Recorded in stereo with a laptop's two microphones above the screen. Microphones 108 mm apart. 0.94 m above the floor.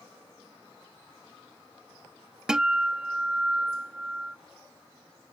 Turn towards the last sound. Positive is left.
turn(degrees=-5)  # may be behind; listen again after turning